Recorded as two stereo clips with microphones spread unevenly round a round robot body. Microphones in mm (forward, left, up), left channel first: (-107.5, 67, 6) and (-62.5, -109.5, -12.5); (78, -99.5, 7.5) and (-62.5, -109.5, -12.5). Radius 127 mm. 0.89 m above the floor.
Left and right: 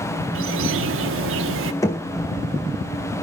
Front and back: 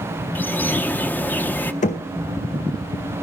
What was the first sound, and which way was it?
A bird, 75° right.